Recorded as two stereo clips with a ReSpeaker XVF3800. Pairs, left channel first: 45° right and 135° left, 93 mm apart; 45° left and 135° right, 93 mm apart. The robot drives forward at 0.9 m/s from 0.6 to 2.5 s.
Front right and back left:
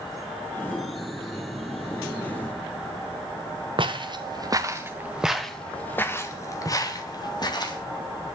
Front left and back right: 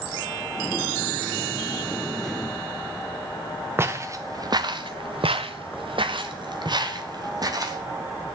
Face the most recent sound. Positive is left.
turn(degrees=-85)